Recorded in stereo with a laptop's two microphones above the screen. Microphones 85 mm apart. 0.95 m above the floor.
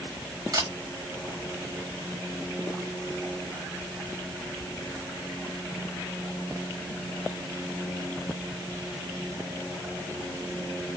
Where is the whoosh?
I don't hear a whoosh.